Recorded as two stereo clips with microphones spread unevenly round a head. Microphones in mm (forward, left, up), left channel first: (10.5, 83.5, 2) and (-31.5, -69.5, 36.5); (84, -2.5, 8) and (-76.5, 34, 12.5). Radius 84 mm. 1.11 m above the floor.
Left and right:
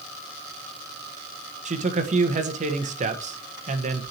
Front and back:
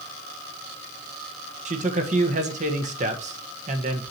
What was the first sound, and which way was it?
A man speaking, 150° right.